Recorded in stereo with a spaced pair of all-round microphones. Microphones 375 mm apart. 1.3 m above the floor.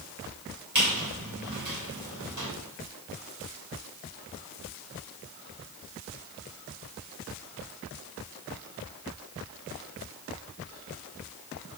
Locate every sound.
0.8 s a squeak: 50° right (ahead or behind), 2.0 m